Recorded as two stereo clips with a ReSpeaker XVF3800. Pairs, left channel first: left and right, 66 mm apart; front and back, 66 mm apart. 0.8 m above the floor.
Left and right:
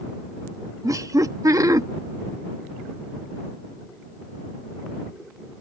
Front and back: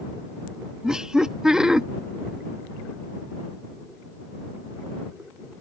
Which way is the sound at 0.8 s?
100° right.